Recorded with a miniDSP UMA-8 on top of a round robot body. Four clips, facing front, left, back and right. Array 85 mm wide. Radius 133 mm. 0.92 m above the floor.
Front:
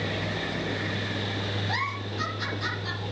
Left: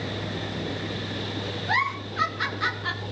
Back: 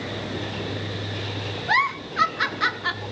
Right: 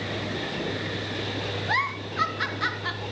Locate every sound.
1.7 s a giggle: straight behind, 2.5 m